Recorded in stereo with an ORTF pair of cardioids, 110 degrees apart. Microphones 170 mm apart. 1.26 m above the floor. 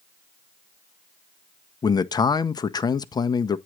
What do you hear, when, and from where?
1.8 s a man speaking: 25° left, 0.7 m